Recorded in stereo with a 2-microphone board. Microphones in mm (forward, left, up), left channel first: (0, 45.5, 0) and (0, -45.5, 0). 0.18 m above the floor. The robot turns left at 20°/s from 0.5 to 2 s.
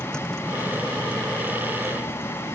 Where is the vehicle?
170° left; by 2.6 s 140° left.